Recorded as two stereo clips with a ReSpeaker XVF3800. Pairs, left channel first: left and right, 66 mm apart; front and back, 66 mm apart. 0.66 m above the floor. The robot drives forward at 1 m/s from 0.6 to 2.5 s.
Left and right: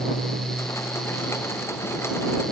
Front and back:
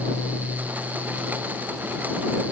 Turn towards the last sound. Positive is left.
No sound to turn to.